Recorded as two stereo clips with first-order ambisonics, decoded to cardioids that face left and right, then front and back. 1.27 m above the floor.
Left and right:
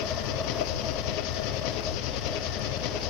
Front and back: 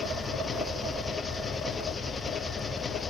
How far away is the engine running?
About 0.7 m.